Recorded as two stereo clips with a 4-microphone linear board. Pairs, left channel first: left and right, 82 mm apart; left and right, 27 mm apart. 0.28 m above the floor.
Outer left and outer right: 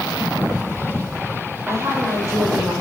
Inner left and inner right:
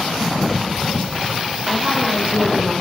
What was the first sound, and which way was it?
A woman speaking, 40° right (ahead or behind).